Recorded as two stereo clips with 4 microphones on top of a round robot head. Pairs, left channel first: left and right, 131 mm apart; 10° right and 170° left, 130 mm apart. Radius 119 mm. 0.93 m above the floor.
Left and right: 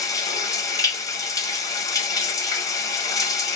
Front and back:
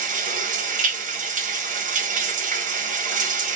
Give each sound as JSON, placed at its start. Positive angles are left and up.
{"t": 0.0, "sound": "running water", "azimuth_deg": 155, "distance_m": 0.9}